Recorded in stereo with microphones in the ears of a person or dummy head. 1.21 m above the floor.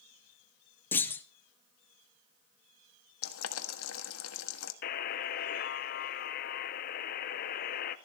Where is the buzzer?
50° left (ahead or behind), 0.6 m.